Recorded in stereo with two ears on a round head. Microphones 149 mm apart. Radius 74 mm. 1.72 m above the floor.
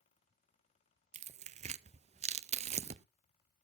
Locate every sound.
1.1 s tearing paper: 40° right (ahead or behind), 0.5 m